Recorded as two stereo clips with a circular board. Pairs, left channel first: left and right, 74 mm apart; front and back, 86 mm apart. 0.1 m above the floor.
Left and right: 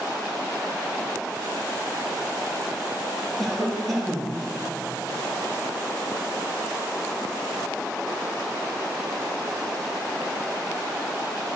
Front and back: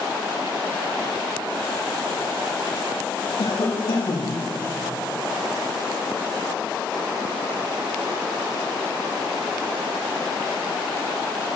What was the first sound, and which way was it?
A cough, straight ahead.